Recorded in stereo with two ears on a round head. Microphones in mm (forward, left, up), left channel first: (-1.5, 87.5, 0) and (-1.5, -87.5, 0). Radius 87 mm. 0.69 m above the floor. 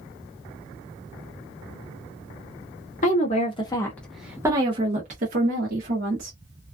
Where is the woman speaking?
40° left (ahead or behind), 0.9 m; by 6.3 s 60° right (ahead or behind), 1.3 m.